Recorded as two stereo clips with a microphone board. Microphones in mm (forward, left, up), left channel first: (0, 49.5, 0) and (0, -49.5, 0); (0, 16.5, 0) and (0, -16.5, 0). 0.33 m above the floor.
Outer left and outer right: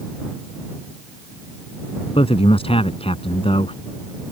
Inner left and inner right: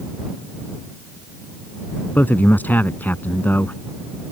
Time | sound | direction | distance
2.1 | a man speaking | 70° left (ahead or behind) | ?